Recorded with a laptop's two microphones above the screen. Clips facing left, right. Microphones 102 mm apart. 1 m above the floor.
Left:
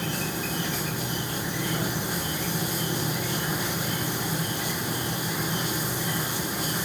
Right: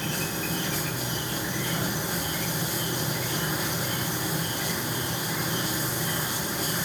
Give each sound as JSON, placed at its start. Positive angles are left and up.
{"t": 0.0, "sound": "an insect", "side_deg": 15, "distance_m": 5.5}